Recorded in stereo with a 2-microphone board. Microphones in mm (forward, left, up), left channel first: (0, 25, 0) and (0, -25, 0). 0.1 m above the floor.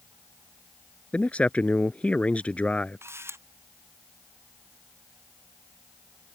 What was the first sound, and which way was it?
A man speaking, 25° left (ahead or behind).